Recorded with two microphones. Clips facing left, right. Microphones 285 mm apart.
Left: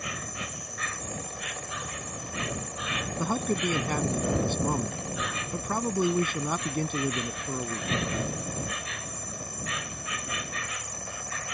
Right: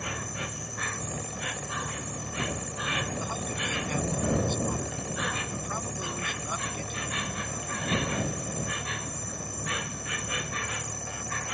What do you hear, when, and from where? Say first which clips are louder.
0.0 s an insect: right 2 dB; 65° right (ahead or behind)
3.2 s a man speaking: left 8 dB; 70° left (ahead or behind)